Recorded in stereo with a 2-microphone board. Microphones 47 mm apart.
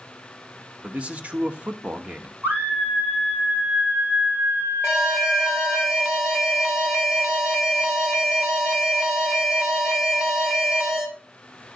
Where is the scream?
50° right (ahead or behind), 3.5 m.